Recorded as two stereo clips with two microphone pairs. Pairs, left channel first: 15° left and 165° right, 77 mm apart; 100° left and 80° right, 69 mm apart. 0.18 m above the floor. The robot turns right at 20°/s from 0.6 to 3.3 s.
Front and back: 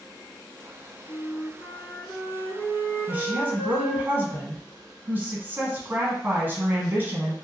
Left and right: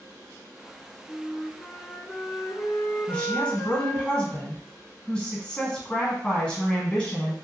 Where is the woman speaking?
160° left, 1.1 m; by 7.3 s 165° left, 1.1 m.